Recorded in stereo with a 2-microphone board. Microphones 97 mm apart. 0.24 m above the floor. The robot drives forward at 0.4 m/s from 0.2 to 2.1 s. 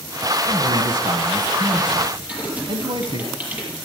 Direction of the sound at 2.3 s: 20° right (ahead or behind).